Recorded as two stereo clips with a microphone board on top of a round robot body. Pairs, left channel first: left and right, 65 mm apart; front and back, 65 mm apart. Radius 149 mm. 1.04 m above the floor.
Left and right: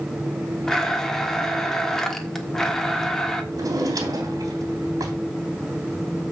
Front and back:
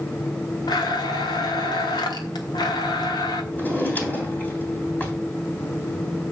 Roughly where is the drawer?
Ahead right.